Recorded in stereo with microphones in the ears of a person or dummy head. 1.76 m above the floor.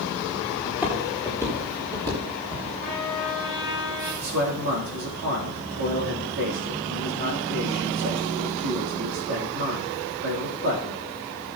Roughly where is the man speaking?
Right.